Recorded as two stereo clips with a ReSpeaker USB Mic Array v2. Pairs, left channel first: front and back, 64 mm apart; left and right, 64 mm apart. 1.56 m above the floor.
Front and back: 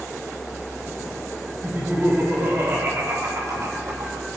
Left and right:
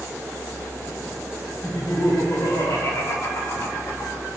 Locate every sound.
1.6 s laughter: 115° left, 3.5 m; by 4.2 s 140° left, 4.5 m